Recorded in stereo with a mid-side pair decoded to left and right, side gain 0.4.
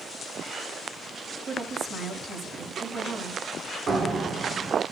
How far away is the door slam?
About 2.5 m.